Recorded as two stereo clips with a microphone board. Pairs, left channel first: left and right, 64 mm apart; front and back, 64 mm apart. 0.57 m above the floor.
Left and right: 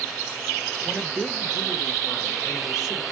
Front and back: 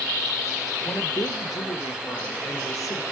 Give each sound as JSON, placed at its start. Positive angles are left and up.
{"t": 0.8, "sound": "a woman speaking", "azimuth_deg": -5, "distance_m": 1.6}